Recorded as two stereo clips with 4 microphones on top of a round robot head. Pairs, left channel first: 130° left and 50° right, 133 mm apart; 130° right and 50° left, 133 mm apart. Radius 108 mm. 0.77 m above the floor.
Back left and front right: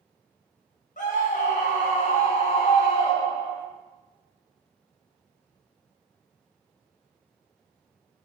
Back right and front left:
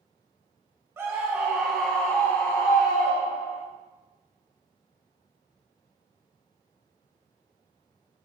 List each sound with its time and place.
1.0 s a scream: 120° left, 1.3 m; by 3.6 s 160° right, 1.2 m